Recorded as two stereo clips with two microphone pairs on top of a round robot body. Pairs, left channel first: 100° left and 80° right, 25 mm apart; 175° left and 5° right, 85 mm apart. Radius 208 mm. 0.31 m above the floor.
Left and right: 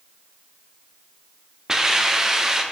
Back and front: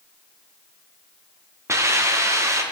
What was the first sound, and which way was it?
A hiss, 40° right.